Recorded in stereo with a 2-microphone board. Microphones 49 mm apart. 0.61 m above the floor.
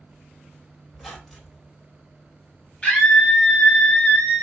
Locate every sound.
0.9 s a squeak: centre (ahead or behind), 1.2 m
2.8 s a scream: 20° left (ahead or behind), 1.0 m